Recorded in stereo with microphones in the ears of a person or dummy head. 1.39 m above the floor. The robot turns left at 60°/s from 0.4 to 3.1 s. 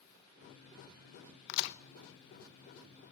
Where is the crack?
70° left (ahead or behind), 0.8 m; by 1.8 s 65° left (ahead or behind), 0.8 m.